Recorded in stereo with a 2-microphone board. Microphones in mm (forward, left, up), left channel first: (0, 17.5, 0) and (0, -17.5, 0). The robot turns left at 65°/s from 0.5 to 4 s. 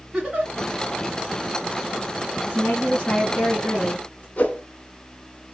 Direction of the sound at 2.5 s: 125° left.